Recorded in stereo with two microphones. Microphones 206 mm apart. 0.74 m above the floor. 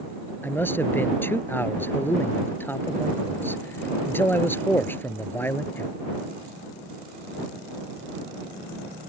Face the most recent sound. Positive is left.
turn(degrees=10)  # may be behind; listen again after turning